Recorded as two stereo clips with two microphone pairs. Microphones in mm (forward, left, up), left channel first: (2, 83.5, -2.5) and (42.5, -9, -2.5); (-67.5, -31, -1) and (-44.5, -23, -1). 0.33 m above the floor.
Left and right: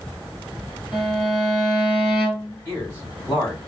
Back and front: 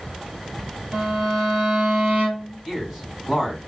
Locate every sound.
0.9 s a violin: 20° left, 1.7 m
2.6 s a man speaking: 80° left, 1.5 m